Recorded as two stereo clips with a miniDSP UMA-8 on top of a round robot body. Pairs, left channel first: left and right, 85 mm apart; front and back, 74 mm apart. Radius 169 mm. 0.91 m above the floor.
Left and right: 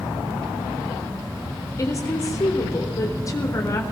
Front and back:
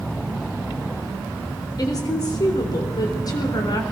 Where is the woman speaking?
35° left, 4 m.